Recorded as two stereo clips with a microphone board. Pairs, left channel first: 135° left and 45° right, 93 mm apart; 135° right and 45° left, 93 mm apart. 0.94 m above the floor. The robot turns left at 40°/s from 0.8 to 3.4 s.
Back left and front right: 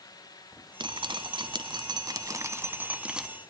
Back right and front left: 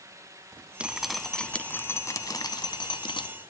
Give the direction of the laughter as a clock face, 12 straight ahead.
No laughter in this recording.